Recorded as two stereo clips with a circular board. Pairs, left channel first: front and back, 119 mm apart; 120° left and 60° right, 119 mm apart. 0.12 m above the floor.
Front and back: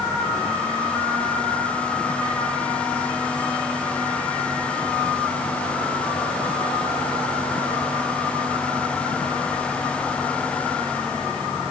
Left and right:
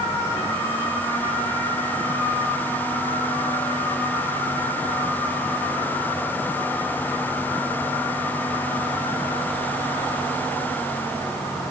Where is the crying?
I don't hear crying.